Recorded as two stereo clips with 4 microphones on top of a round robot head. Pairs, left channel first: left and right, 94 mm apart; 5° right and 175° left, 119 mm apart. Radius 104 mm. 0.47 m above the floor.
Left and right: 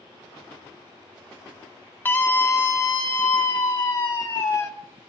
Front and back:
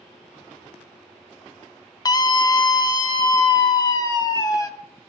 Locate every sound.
2.0 s a scream: 30° left, 1.0 m; by 4.7 s 50° left, 2.5 m